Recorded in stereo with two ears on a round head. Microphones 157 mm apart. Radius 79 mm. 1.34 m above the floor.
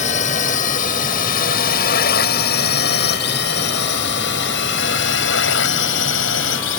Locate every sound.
0.0 s a drone: 45° left (ahead or behind); by 6.8 s 80° left